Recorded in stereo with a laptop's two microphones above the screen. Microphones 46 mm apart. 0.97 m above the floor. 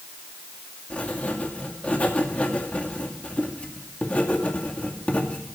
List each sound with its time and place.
0.9 s writing: 30° left (ahead or behind), 2 m